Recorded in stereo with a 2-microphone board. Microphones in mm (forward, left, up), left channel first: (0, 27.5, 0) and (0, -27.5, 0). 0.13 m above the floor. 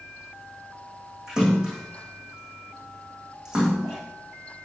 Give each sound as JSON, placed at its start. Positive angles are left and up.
{"t": 1.3, "sound": "a splash", "side_deg": -10, "distance_m": 7.5}